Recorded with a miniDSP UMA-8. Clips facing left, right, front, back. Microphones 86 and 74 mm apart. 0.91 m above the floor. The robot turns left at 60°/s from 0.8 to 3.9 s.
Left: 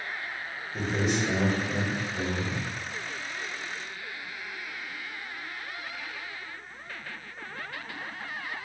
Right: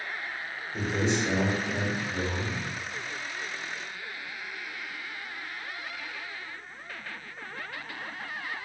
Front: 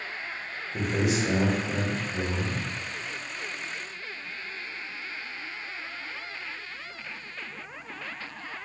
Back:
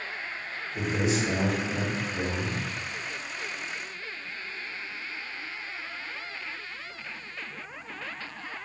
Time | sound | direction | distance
0.7 | a man speaking | 10° right | 1.5 m